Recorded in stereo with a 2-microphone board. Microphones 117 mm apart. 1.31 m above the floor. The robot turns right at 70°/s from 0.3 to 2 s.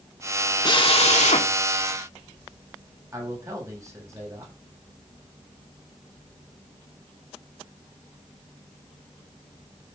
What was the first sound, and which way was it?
A drill, 40° left.